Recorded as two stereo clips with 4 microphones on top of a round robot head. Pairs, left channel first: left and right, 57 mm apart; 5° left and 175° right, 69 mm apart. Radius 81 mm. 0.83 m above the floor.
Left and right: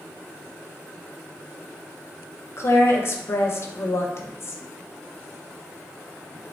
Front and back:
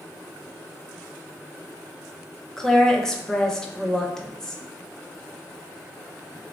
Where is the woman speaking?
85° left, 0.6 m.